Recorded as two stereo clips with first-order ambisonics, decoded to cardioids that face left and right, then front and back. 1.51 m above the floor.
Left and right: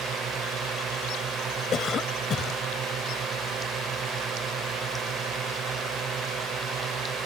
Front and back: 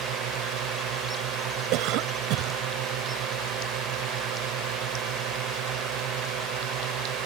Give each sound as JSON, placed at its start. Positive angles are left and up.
{"t": 0.0, "sound": "a drone", "azimuth_deg": -150}
{"t": 1.7, "sound": "a cough", "azimuth_deg": 150}